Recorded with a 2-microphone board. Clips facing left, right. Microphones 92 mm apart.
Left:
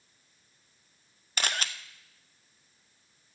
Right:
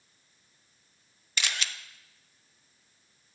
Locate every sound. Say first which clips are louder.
1.4 s a camera shutter: left 2 dB; 45° left (ahead or behind), 0.5 m